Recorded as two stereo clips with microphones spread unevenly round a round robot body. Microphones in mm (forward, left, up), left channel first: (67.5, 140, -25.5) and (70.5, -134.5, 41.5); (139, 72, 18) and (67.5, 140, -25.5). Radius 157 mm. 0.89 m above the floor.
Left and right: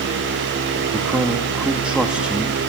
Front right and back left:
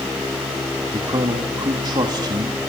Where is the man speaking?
175° left, 1.3 m.